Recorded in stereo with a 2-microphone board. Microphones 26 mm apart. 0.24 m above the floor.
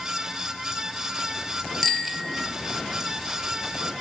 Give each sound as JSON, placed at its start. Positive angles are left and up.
{"t": 1.8, "sound": "a bicycle bell", "side_deg": 5, "distance_m": 3.5}